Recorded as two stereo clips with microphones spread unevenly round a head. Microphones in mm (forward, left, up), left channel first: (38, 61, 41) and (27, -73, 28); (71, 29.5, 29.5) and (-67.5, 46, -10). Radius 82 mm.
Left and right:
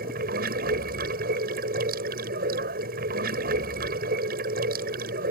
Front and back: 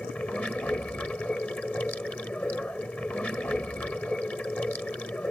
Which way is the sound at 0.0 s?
85° right.